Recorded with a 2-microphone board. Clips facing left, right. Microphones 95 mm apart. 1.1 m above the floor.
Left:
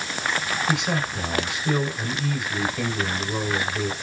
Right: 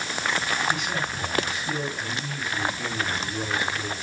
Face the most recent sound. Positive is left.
turn(degrees=80)